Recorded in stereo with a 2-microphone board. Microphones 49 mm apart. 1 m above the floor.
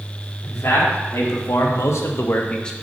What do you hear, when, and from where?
0.4 s a man speaking: 70° left (ahead or behind), 2.5 m; by 2.7 s 10° left (ahead or behind), 0.8 m